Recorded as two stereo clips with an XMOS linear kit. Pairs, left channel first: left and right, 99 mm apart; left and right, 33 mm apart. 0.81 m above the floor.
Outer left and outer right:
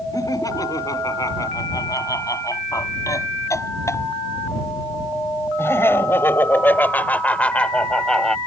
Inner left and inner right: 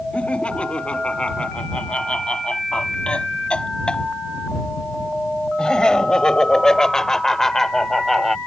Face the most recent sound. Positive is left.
turn(degrees=5)  # may be behind; listen again after turning